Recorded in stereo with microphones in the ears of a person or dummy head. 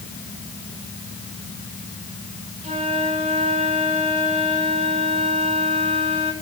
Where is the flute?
35° right (ahead or behind), 3 m.